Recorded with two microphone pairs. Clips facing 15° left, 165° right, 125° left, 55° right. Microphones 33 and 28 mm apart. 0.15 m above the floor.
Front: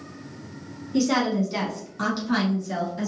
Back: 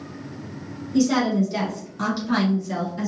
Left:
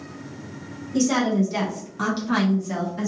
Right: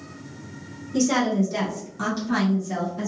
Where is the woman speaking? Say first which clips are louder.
Back 2 dB, left 1 dB; 15° left, 1.1 m; by 3.1 s 120° left, 1.4 m.